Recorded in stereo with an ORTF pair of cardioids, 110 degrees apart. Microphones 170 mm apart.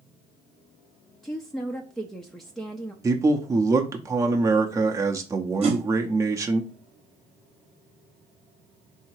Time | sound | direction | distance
1.2 | a woman speaking | straight ahead | 0.5 m
3.0 | a man speaking | 20° right | 0.6 m
5.6 | a whoosh | 35° right | 1.0 m